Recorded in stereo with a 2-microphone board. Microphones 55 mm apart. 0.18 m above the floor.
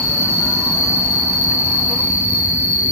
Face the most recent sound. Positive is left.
turn(degrees=-40)  # may be behind; listen again after turning